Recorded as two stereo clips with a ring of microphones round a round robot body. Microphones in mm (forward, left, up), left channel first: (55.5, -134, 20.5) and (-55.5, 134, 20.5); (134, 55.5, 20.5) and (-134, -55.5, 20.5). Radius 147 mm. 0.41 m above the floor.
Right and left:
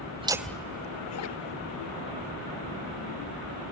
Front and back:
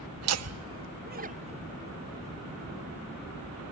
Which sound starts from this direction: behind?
Laughter, at 0.2 s.